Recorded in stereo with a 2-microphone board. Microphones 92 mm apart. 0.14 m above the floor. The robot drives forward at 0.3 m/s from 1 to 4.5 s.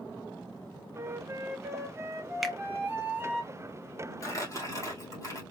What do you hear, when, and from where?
0.9 s a flute: 25° right (ahead or behind), 1.5 m; by 3.4 s 20° right (ahead or behind), 2 m
2.4 s a finger snap: centre (ahead or behind), 0.9 m
4.2 s crumpling: 35° left (ahead or behind), 2.5 m